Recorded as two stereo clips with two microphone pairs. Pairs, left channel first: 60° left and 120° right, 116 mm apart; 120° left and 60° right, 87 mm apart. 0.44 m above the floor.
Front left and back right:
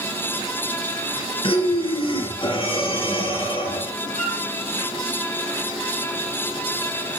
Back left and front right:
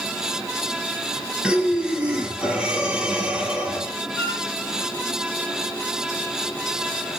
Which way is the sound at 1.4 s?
20° left.